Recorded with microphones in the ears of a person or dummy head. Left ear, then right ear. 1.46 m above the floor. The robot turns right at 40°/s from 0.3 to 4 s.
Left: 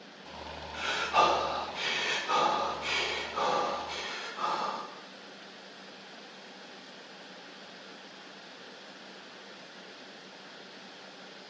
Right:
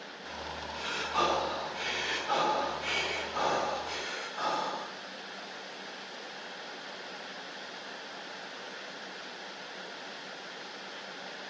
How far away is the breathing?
About 2.5 m.